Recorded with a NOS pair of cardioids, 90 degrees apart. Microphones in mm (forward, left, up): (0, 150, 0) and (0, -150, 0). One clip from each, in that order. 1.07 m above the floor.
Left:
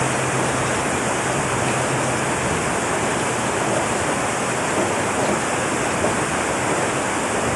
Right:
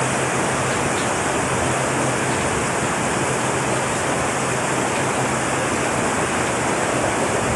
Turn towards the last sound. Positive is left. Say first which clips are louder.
# even
turn(degrees=0)